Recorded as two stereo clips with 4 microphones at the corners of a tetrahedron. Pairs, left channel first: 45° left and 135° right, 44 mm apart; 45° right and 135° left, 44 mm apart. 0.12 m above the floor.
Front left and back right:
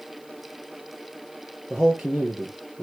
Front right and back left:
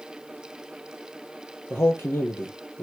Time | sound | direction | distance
1.7 | a man speaking | 55° right | 2 m